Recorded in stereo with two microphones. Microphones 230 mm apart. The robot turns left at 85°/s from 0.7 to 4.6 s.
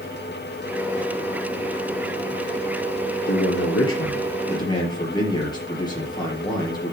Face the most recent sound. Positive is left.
turn(degrees=20)